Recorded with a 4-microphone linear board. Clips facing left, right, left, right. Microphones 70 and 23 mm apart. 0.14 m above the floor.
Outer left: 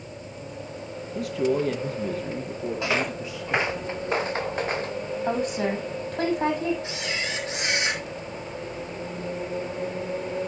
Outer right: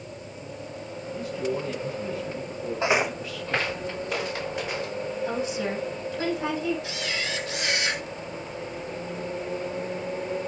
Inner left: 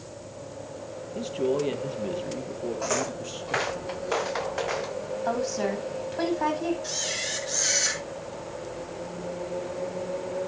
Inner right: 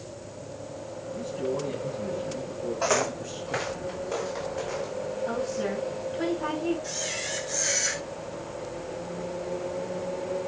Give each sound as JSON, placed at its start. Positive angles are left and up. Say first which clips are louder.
{"t": 1.1, "sound": "a man speaking", "louder": "outer left 5 dB, inner left 4 dB", "side_deg": 70, "distance_m": 3.5}
{"t": 2.8, "sound": "footsteps", "louder": "outer right 4 dB, inner right 5 dB", "side_deg": -25, "distance_m": 0.5}
{"t": 5.2, "sound": "a woman speaking", "louder": "outer left 5 dB, inner left 4 dB", "side_deg": 55, "distance_m": 7.0}
{"t": 6.8, "sound": "a camera shutter", "louder": "even, inner left 2 dB", "side_deg": 30, "distance_m": 3.5}